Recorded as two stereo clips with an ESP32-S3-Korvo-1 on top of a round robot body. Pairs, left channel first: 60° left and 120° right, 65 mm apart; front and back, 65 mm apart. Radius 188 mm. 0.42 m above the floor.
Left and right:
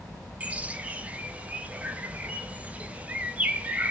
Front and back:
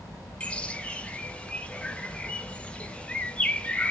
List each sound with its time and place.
0.4 s a bird: 65° right, 0.6 m